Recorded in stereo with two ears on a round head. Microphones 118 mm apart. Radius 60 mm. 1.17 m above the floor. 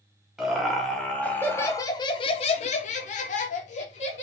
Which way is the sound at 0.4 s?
Centre (ahead or behind).